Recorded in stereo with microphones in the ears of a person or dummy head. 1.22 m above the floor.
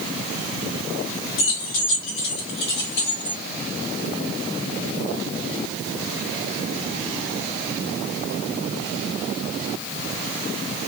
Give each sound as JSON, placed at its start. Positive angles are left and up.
{"t": 1.4, "sound": "keys jangling", "side_deg": 65, "distance_m": 0.8}